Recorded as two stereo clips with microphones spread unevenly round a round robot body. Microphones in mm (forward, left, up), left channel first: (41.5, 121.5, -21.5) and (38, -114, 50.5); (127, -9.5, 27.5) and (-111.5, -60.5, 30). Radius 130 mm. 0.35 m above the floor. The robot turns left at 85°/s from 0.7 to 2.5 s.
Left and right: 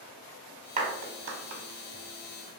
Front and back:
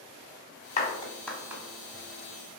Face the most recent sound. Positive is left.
turn(degrees=-170)